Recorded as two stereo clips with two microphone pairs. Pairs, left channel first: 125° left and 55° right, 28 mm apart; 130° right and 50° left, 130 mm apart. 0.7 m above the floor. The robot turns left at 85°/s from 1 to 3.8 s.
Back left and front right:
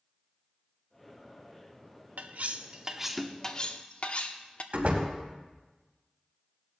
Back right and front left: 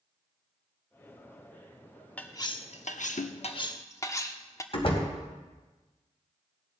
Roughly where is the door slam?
Right.